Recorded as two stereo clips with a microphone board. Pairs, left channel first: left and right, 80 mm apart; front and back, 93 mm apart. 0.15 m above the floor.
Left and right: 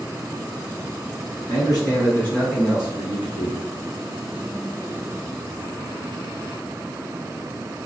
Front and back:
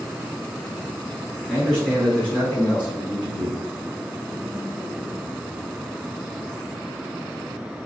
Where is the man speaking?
90° left, 1.6 m; by 3.6 s 50° right, 1.6 m.